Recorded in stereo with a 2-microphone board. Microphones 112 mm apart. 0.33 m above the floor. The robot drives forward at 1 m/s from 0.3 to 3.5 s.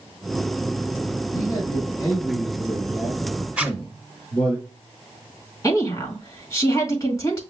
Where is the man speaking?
30° left (ahead or behind), 1.6 m; by 4.6 s 15° left (ahead or behind), 3.5 m.